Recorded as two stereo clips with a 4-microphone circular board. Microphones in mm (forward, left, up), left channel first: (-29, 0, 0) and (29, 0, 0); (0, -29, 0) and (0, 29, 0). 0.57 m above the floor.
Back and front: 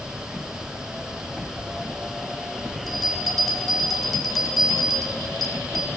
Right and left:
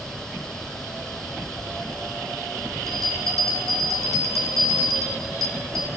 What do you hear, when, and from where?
2.9 s a bell: 95° left, 1.9 m